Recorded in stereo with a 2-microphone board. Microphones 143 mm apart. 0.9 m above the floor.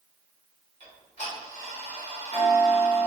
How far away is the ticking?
About 1.9 m.